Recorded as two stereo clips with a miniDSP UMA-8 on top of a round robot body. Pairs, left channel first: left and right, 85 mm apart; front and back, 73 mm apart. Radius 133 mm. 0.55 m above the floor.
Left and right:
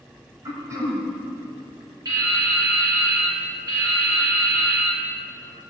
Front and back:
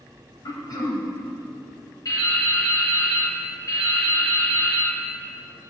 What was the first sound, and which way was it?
Throat clearing, 35° right.